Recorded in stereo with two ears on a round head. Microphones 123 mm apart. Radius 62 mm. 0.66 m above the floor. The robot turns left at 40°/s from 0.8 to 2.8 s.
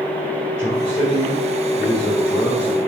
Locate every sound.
0.6 s a man speaking: 135° right, 2.5 m; by 2.8 s 145° left, 2.5 m